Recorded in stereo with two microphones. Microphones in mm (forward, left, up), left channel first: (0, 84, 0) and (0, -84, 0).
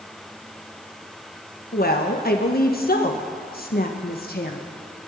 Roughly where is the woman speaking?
Left.